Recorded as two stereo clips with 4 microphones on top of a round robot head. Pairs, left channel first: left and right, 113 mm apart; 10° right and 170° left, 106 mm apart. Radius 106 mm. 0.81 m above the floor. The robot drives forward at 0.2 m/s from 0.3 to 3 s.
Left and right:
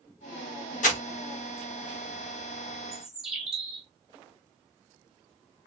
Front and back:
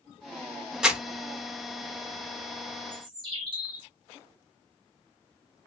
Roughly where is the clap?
I don't hear a clap.